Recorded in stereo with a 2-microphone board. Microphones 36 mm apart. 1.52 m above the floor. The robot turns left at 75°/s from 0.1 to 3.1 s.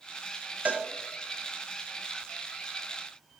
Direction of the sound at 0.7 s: 45° right (ahead or behind).